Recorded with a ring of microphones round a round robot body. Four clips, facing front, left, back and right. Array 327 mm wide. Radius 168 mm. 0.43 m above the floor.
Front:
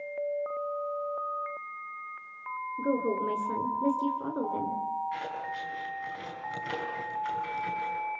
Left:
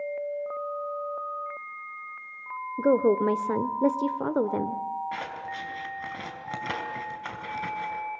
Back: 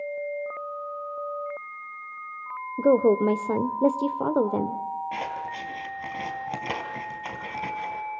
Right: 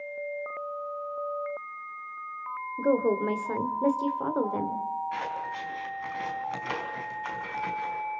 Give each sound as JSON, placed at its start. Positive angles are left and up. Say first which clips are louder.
{"t": 2.8, "sound": "a woman speaking", "louder": "left 3 dB, back 10 dB", "azimuth_deg": 155, "distance_m": 1.4}
{"t": 5.1, "sound": "scissors", "louder": "right 2 dB, back 3 dB", "azimuth_deg": 150, "distance_m": 4.5}